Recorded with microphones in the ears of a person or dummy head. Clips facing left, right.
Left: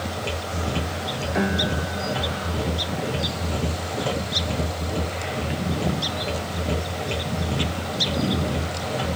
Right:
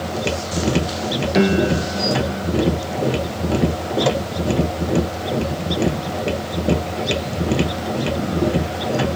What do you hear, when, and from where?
0.0 s a machine running: 70° right (ahead or behind), 1.0 m
1.3 s a piano: 45° right (ahead or behind), 0.5 m